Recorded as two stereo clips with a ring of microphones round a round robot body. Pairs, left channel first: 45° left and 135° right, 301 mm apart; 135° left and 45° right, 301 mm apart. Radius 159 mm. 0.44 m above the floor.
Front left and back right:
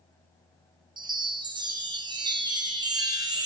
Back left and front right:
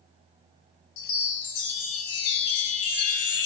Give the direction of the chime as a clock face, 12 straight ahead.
7 o'clock.